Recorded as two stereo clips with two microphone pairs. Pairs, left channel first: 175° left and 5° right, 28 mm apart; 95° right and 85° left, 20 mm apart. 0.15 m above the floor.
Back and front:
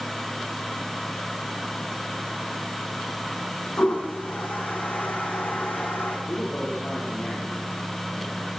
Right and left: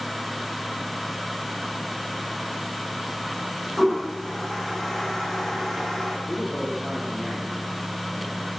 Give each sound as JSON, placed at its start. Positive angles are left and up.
{"t": 3.8, "sound": "a toilet flushing", "azimuth_deg": -175, "distance_m": 3.0}
{"t": 6.3, "sound": "a man speaking", "azimuth_deg": -160, "distance_m": 5.0}